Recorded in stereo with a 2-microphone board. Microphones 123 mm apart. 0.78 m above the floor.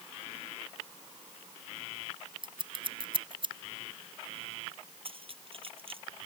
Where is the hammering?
No hammering in this recording.